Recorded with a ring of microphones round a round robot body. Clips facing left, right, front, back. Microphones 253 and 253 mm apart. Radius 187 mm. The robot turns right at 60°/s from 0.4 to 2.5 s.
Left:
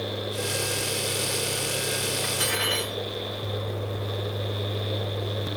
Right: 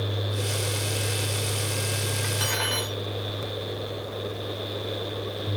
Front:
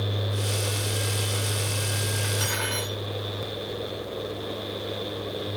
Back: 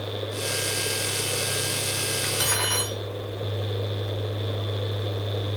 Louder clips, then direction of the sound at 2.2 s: Left 1 dB, back 1 dB; 150° left.